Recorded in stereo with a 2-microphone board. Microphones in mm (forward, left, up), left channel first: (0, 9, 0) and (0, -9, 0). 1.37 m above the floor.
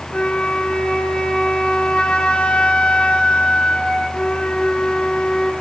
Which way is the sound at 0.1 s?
80° left.